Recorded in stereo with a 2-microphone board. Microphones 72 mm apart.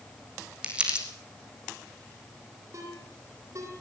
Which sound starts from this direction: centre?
Crumpling, at 0.6 s.